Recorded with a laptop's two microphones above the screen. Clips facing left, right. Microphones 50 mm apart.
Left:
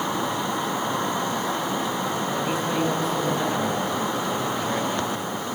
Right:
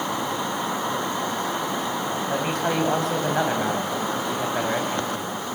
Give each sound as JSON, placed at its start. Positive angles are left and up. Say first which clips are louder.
{"t": 2.3, "sound": "a man speaking", "louder": "right 1 dB", "side_deg": -60, "distance_m": 5.5}